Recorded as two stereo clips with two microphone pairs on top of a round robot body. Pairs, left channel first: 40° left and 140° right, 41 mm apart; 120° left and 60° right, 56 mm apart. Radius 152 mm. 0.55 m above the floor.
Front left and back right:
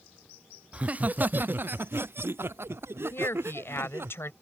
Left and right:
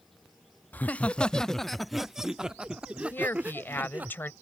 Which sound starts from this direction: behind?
Laughter, at 0.7 s.